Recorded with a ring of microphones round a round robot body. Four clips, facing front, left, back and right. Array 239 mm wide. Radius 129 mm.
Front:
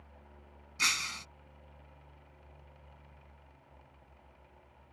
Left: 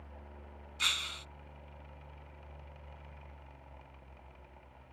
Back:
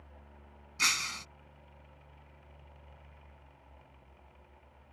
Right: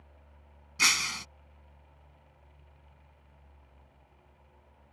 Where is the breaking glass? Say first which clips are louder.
Right 8 dB, back 1 dB; 90° right.